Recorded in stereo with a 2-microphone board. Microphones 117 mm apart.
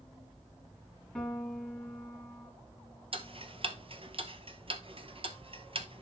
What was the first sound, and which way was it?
A piano, 5° left (ahead or behind).